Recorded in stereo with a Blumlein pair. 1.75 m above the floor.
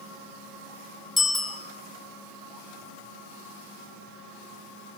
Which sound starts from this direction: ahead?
A bicycle bell, at 1.2 s.